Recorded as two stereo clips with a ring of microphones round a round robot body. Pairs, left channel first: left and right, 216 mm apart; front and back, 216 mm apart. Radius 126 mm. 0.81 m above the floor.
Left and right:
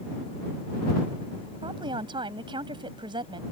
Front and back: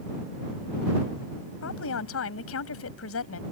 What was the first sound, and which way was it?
A woman speaking, 20° right.